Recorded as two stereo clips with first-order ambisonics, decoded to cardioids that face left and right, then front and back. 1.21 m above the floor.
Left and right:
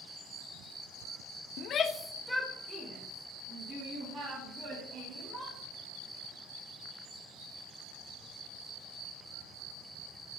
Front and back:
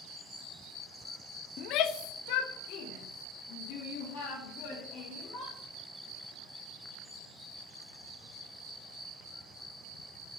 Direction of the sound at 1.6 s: 50° left.